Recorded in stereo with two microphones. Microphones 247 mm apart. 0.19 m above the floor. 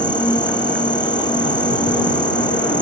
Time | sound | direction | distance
0.0 | an insect | 15° left (ahead or behind) | ?